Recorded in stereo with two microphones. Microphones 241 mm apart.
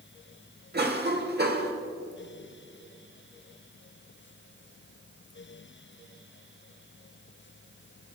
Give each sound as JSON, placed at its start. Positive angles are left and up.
{"t": 0.7, "sound": "a cough", "side_deg": -40, "distance_m": 1.1}